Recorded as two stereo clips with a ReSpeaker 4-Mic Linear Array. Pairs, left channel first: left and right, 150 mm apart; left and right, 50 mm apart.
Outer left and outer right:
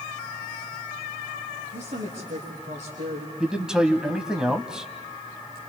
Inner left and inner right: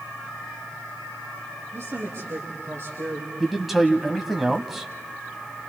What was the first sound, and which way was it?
A woman speaking, 50° right (ahead or behind).